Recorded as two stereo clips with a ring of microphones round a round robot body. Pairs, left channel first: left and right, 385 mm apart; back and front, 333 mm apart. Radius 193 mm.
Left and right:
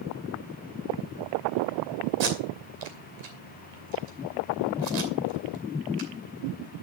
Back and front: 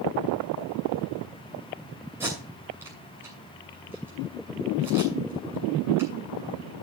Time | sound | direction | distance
2.2 | tape being pulled | 85° right | 2.5 m